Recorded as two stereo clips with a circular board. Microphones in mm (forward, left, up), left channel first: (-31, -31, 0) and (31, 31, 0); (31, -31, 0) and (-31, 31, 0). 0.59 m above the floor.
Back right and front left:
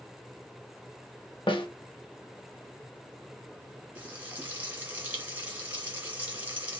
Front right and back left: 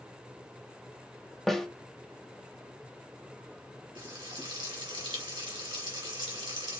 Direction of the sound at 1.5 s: 130° right.